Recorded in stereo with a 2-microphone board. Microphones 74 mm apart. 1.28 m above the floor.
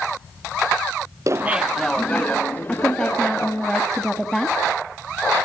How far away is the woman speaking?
About 1.9 m.